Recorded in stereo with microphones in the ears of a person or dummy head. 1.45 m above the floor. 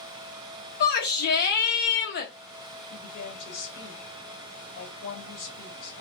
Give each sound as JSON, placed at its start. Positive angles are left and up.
{"t": 0.8, "sound": "a shout", "side_deg": 55, "distance_m": 1.0}
{"t": 2.9, "sound": "a woman speaking", "side_deg": 75, "distance_m": 1.8}